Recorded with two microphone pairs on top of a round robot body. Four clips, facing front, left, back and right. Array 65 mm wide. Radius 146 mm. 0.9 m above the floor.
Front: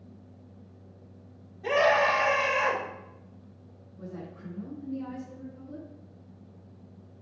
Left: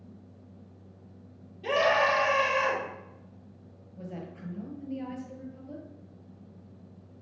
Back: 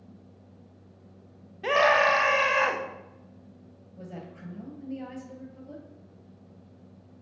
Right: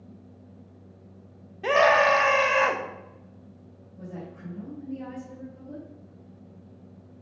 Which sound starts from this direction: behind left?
A woman speaking, at 4.0 s.